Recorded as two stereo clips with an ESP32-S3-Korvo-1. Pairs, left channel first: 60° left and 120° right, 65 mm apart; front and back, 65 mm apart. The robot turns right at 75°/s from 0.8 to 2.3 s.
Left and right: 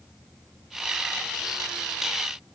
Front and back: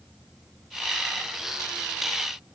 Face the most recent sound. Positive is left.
No sound to turn to.